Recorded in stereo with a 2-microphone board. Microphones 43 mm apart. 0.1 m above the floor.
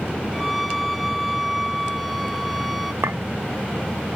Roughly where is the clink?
Right.